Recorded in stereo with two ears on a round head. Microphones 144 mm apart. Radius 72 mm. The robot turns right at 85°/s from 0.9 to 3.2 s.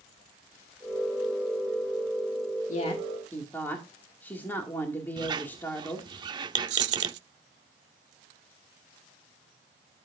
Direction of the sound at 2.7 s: 125° left.